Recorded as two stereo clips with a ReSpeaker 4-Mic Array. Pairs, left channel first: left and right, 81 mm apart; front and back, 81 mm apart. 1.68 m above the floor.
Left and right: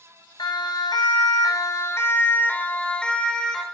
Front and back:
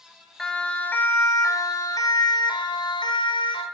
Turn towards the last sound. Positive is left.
turn(degrees=5)